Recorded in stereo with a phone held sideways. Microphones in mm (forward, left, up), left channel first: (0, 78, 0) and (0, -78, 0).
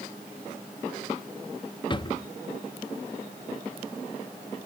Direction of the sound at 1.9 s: 30° left (ahead or behind).